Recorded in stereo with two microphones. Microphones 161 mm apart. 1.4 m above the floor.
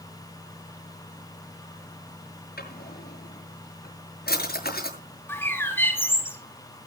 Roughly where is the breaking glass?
No breaking glass in this recording.